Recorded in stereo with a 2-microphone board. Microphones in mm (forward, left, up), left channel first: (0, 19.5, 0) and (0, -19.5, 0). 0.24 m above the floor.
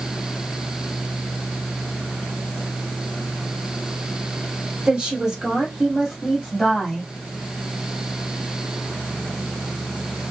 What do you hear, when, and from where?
4.9 s a woman speaking: 25° right (ahead or behind), 1.6 m; by 7.1 s 5° left (ahead or behind), 1.7 m